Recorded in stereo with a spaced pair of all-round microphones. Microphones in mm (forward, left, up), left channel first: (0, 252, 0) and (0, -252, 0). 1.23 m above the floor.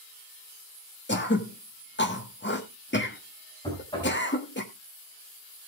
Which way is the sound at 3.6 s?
10° left (ahead or behind).